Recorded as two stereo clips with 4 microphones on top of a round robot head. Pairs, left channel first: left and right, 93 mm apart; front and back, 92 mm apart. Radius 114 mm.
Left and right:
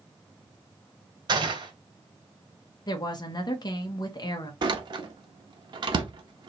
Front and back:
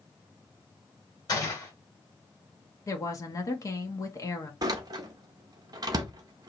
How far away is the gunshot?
About 1.8 m.